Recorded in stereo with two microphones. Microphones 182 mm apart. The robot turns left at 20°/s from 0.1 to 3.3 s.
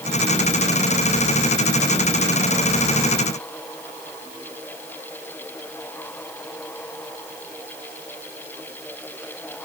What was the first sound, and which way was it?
Only background noise.